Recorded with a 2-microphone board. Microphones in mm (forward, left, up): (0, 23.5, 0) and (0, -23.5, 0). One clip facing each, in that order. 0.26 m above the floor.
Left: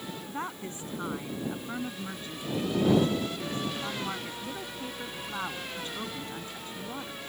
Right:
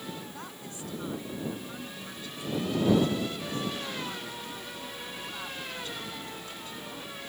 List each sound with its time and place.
0.3 s a woman speaking: 30° left (ahead or behind)